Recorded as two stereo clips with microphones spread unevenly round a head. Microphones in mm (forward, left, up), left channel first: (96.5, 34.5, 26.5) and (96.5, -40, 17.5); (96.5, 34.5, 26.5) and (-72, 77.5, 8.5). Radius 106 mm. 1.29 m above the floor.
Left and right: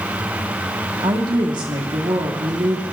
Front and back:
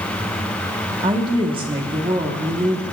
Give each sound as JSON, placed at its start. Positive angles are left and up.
{"t": 1.0, "sound": "a woman speaking", "azimuth_deg": -125, "distance_m": 1.2}